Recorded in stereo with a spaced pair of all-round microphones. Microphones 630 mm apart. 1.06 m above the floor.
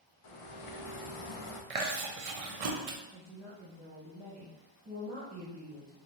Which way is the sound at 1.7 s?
65° right (ahead or behind).